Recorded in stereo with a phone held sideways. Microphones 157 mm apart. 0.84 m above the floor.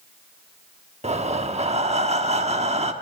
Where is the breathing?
40° right (ahead or behind), 1.2 m.